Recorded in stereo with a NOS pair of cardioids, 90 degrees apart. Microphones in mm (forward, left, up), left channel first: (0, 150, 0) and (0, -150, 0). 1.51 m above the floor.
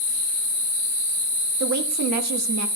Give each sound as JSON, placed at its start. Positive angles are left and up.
{"t": 1.6, "sound": "a woman speaking", "azimuth_deg": -65, "distance_m": 2.0}